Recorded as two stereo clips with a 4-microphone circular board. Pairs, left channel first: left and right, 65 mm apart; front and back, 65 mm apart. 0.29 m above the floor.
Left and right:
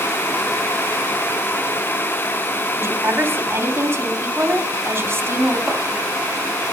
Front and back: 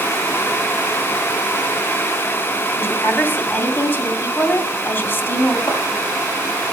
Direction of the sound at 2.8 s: 45° right.